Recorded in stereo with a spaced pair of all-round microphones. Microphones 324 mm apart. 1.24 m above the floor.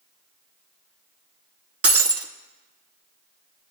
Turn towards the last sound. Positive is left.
turn(degrees=-45)  # may be behind; listen again after turning